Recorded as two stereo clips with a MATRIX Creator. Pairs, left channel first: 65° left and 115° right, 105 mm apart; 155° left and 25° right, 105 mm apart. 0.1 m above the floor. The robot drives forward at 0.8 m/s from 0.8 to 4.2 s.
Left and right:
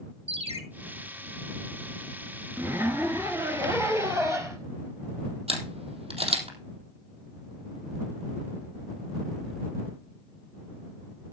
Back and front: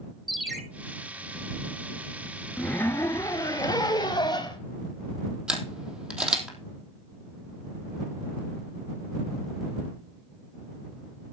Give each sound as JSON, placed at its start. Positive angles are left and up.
{"t": 0.3, "sound": "a ringtone", "azimuth_deg": -110, "distance_m": 1.5}
{"t": 2.6, "sound": "a zipper", "azimuth_deg": -150, "distance_m": 1.4}
{"t": 5.5, "sound": "a camera shutter", "azimuth_deg": -100, "distance_m": 3.0}